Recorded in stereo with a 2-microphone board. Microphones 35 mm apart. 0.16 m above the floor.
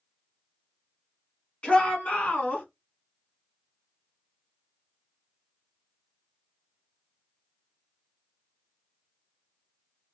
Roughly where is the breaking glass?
No breaking glass in this recording.